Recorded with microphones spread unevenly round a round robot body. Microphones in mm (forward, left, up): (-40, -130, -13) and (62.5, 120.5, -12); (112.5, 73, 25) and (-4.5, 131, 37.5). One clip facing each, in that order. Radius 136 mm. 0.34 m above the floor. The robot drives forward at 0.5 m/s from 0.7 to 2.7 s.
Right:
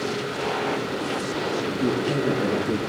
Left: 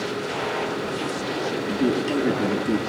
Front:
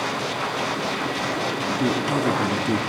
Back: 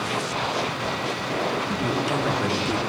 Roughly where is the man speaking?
Ahead.